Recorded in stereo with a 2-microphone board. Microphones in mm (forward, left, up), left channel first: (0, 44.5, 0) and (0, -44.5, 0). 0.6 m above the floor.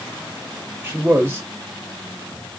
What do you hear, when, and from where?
0.8 s a man speaking: 25° right (ahead or behind), 0.7 m